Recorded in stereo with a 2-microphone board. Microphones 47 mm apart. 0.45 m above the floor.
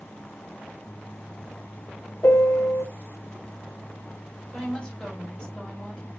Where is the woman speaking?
10° left (ahead or behind), 3 m.